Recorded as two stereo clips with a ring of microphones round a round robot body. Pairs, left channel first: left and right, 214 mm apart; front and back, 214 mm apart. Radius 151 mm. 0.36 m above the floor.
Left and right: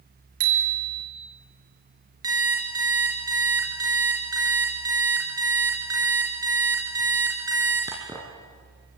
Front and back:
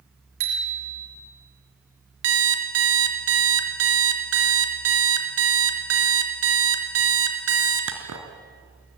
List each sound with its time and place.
0.4 s a bicycle bell: 130° right, 4.5 m
2.2 s an alarm clock: 170° right, 3 m